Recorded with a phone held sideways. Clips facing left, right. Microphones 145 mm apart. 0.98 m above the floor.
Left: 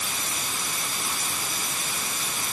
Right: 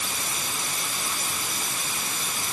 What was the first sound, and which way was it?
Only background noise.